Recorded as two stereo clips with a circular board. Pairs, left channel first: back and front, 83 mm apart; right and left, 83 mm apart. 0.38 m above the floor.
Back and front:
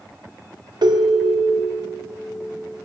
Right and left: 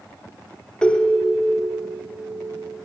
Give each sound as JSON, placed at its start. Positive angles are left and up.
{"t": 0.8, "sound": "a ringtone", "azimuth_deg": -15, "distance_m": 0.6}